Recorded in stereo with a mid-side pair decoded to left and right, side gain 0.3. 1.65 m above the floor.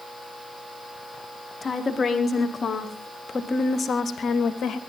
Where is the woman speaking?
45° left, 4.5 m; by 4.8 s 70° left, 2.5 m.